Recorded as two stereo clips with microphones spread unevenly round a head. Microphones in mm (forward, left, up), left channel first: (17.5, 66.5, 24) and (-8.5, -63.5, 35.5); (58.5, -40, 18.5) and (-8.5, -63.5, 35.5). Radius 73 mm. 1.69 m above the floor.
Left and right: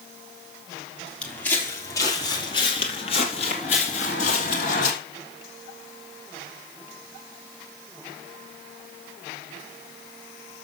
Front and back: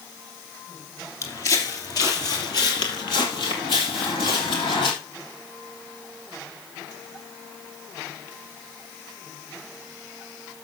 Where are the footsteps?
5° right, 1.9 m; by 4.9 s 55° left, 3 m.